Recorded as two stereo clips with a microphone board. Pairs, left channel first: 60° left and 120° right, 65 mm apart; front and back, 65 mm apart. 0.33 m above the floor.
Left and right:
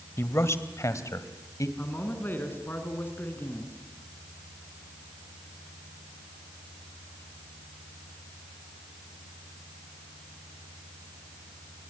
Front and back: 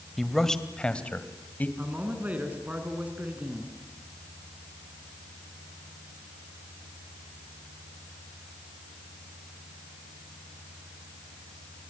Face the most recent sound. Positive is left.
turn(degrees=115)